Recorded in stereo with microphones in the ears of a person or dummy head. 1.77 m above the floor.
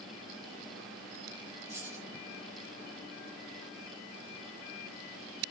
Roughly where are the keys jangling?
Centre.